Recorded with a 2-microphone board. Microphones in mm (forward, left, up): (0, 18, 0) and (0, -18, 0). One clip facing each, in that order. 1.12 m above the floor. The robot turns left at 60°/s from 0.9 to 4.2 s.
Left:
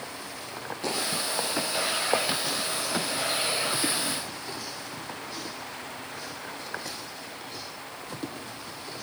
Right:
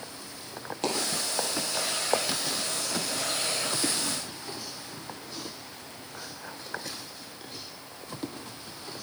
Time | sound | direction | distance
0.8 | a dropped coin | 70° right (ahead or behind) | 3.5 m